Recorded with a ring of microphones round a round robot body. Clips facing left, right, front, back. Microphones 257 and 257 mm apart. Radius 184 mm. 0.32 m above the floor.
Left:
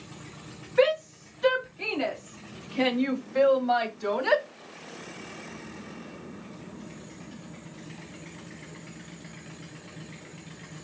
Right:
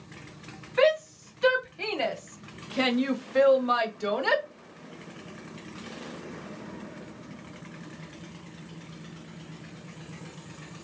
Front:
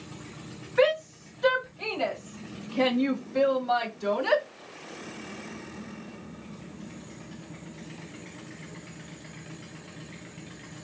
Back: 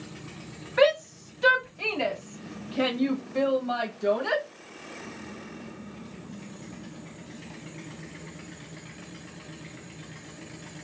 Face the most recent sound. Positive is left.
turn(degrees=-50)